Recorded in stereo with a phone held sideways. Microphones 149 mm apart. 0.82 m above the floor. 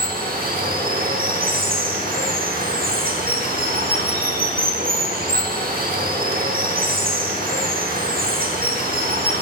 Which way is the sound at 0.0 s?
80° right.